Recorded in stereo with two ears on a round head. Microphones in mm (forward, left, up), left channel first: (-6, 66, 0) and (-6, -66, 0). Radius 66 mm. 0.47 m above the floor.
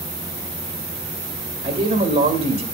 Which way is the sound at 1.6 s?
45° right (ahead or behind).